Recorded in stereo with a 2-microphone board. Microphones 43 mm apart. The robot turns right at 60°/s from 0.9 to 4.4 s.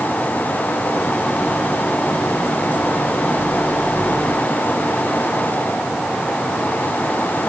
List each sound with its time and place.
Only background noise.